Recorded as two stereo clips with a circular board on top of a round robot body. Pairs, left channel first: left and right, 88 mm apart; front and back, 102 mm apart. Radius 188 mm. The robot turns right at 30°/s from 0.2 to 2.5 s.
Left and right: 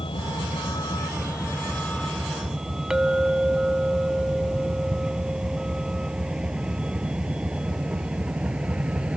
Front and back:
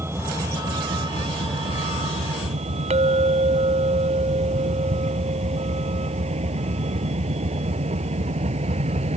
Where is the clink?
175° right.